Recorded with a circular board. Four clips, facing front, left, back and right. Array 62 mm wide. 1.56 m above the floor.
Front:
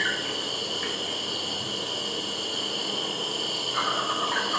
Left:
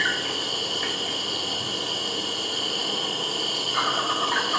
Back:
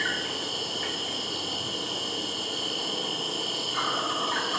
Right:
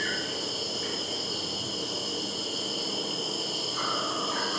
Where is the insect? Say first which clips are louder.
Left 6 dB, front 2 dB; 75° left, 1.7 m.